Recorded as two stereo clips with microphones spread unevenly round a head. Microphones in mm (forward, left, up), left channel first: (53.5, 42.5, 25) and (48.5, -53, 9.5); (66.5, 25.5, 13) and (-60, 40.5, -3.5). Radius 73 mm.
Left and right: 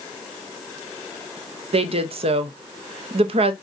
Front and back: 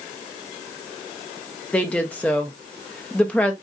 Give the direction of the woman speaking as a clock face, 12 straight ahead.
3 o'clock.